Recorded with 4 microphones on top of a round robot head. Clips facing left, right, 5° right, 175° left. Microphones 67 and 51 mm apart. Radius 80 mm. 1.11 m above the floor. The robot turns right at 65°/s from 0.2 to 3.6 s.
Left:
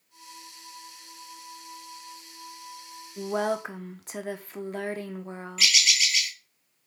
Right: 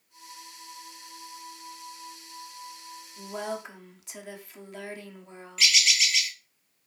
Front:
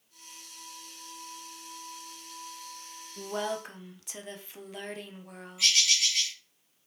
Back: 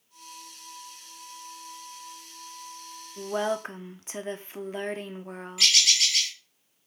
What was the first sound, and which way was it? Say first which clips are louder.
A woman speaking: left 7 dB, back 5 dB; 95° left.